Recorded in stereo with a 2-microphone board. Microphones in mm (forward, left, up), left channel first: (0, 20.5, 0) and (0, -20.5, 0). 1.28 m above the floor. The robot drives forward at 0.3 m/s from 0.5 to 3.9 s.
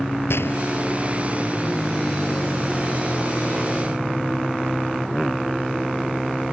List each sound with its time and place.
0.3 s a gunshot: 80° left